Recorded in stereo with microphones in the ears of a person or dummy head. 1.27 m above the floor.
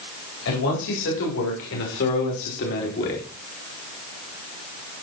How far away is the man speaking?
About 4 m.